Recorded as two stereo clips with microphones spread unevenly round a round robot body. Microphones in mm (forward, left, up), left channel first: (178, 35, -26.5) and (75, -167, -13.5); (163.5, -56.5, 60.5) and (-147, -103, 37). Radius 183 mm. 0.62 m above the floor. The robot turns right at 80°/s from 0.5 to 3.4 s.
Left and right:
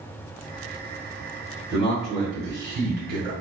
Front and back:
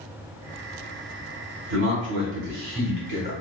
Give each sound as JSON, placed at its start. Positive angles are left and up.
{"t": 1.7, "sound": "a man speaking", "azimuth_deg": 130, "distance_m": 1.8}